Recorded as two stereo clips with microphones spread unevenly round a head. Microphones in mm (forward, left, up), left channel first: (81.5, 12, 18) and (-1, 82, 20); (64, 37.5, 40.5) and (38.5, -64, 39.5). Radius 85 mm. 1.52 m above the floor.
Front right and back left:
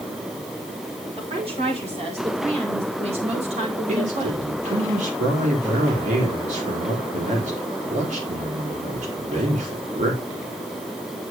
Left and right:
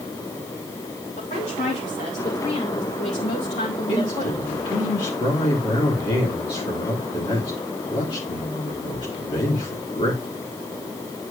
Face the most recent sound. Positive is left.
turn(degrees=135)